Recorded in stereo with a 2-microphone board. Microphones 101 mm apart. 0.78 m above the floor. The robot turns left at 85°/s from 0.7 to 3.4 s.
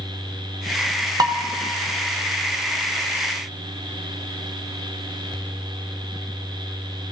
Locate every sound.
1.2 s dishes clattering: 40° right (ahead or behind), 0.6 m; by 1.4 s 50° right (ahead or behind), 0.6 m